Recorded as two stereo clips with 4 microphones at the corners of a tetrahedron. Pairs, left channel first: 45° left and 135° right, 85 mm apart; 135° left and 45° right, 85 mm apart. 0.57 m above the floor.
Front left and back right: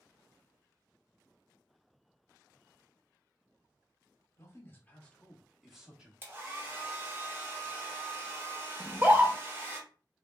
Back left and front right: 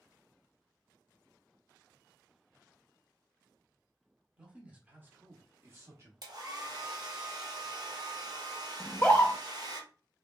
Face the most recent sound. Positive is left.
turn(degrees=-175)